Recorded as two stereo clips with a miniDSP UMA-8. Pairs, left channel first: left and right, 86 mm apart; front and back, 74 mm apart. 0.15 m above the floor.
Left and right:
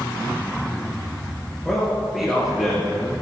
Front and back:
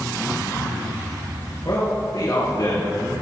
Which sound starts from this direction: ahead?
A man speaking, at 1.6 s.